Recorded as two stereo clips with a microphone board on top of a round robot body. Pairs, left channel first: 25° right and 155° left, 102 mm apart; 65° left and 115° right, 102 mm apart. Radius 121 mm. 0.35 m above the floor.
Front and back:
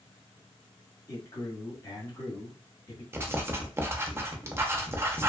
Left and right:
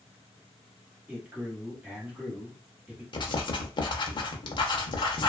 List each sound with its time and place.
1.1 s a man speaking: 45° right, 1.3 m
3.1 s writing: 95° left, 0.7 m